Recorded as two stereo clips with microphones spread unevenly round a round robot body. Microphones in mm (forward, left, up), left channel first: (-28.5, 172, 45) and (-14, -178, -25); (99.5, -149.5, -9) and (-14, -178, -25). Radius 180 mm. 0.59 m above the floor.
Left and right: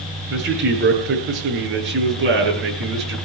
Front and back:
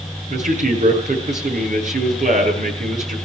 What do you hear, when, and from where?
0.3 s a man speaking: 150° right, 9 m